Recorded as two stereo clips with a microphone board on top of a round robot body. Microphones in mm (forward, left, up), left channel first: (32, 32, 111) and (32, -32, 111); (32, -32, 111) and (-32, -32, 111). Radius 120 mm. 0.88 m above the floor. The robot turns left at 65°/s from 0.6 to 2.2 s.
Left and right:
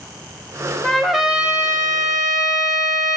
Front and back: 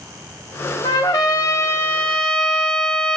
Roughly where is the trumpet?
Ahead.